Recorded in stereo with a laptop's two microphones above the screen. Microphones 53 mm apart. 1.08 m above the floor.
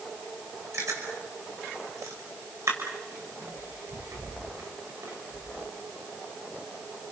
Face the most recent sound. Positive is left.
turn(degrees=-70)  # may be behind; listen again after turning